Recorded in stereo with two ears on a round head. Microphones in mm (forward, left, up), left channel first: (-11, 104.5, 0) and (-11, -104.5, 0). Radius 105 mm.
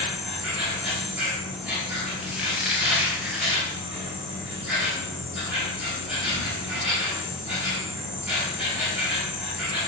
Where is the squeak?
5° right (ahead or behind), 0.5 m.